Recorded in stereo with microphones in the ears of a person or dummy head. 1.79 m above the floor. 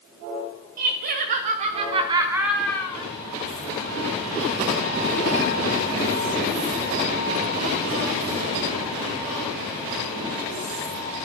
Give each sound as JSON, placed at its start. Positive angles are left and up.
{"t": 0.8, "sound": "laughter", "side_deg": -50, "distance_m": 2.0}